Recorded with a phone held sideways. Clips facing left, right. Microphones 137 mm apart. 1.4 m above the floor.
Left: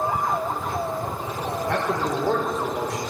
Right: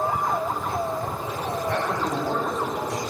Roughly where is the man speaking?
Left.